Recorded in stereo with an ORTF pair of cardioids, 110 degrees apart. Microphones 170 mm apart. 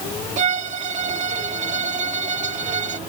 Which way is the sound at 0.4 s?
45° right.